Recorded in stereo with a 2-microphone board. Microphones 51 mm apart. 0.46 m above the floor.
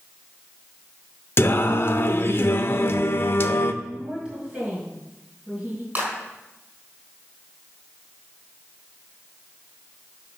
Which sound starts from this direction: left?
Singing, at 1.4 s.